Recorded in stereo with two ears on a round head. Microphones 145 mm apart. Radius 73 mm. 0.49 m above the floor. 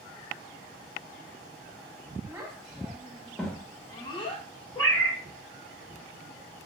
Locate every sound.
2.3 s a child speaking: 10° right (ahead or behind), 1.5 m; by 4.5 s 40° left (ahead or behind), 0.6 m
4.8 s a cat meowing: 5° left (ahead or behind), 1.3 m